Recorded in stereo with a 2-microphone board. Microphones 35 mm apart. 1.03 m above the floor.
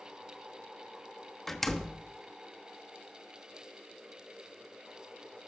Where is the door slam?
5° left (ahead or behind), 1.1 m.